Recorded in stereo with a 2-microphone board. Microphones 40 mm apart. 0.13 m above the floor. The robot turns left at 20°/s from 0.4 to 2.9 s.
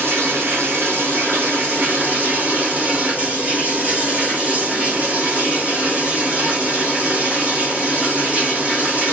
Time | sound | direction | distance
0.0 | running water | 95° right | 2.5 m